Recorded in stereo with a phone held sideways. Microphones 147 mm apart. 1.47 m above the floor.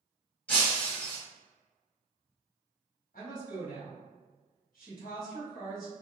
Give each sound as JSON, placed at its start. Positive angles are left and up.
{"t": 0.5, "sound": "breaking glass", "side_deg": 10, "distance_m": 1.4}
{"t": 3.1, "sound": "a woman speaking", "side_deg": 75, "distance_m": 1.9}